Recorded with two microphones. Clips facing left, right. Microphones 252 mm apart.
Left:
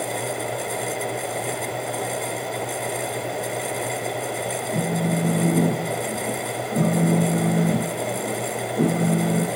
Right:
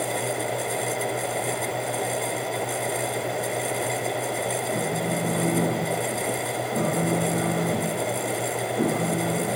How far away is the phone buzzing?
About 2.5 m.